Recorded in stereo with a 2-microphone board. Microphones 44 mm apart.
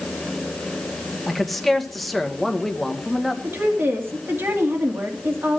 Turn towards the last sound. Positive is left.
turn(degrees=-55)  # may be behind; listen again after turning